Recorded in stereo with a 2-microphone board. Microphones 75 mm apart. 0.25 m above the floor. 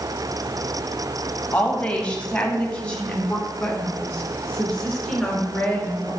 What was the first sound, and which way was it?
A woman speaking, 20° left (ahead or behind).